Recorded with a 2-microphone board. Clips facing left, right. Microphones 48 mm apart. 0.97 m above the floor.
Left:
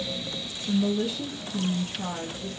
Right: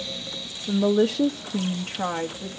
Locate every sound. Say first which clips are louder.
0.7 s a woman speaking: right 5 dB; 35° right (ahead or behind), 0.6 m